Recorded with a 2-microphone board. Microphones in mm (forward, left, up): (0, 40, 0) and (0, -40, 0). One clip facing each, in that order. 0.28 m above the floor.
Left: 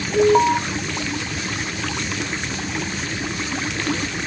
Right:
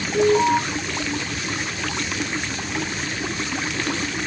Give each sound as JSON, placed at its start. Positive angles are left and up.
{"t": 0.1, "sound": "an alarm", "side_deg": 35, "distance_m": 1.6}